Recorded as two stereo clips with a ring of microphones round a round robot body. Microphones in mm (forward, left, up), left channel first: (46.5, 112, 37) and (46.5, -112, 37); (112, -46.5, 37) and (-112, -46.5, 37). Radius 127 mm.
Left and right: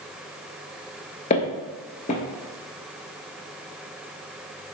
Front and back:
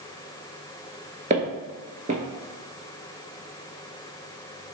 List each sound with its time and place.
1.3 s footsteps: 135° left, 0.7 m